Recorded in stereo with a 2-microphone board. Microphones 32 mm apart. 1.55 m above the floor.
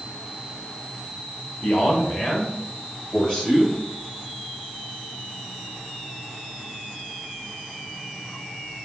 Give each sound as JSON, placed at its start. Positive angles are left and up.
{"t": 1.6, "sound": "a man speaking", "side_deg": 60, "distance_m": 1.1}